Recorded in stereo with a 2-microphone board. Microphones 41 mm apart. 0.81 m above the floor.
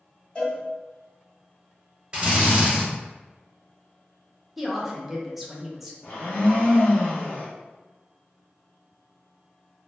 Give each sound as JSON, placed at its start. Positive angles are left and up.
{"t": 0.3, "sound": "a cowbell", "side_deg": 25, "distance_m": 1.4}
{"t": 2.1, "sound": "a drill", "side_deg": -25, "distance_m": 1.1}
{"t": 4.6, "sound": "a woman speaking", "side_deg": -5, "distance_m": 0.6}
{"t": 6.0, "sound": "a blender", "side_deg": 40, "distance_m": 0.8}